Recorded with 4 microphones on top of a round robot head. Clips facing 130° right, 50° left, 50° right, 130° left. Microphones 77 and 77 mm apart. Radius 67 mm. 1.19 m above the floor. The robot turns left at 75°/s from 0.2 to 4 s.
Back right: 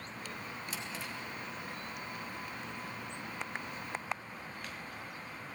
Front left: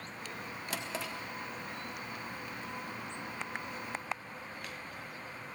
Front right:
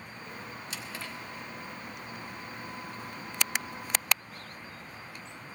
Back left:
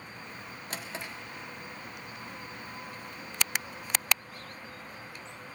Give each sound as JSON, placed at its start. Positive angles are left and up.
{"t": 0.7, "sound": "a drawer", "azimuth_deg": 85, "distance_m": 1.3}